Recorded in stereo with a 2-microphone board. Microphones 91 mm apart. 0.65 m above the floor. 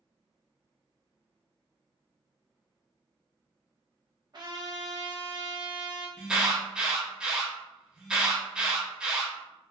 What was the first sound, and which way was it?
A trumpet, 50° right (ahead or behind).